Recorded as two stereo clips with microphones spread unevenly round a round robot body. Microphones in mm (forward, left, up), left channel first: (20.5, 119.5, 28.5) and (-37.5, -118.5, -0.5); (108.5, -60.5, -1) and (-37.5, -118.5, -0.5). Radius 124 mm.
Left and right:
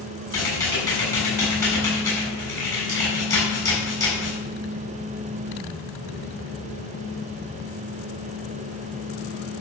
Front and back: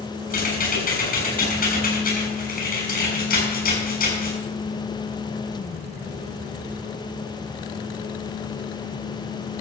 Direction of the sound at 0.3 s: Straight ahead.